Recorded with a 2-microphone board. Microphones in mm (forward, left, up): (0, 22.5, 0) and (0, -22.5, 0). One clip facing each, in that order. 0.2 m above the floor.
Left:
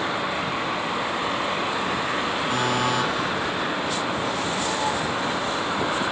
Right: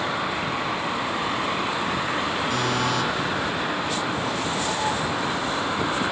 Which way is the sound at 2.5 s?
30° left (ahead or behind).